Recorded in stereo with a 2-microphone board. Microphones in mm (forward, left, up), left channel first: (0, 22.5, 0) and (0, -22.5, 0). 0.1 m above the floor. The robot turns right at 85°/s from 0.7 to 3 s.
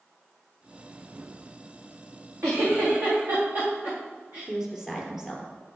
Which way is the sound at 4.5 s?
10° right (ahead or behind).